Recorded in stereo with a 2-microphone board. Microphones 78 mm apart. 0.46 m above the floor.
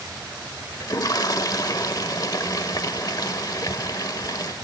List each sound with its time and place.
0.8 s a toilet flushing: 50° left (ahead or behind), 0.9 m